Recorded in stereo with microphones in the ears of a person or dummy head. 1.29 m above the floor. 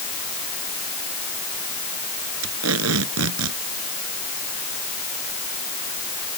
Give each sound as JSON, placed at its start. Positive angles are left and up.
{"t": 2.4, "sound": "tape being pulled", "side_deg": -85}